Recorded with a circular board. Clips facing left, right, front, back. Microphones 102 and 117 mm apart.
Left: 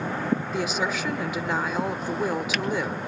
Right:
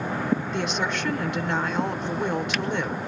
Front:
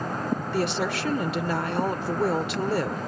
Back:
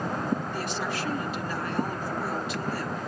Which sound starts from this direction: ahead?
A woman speaking, at 0.5 s.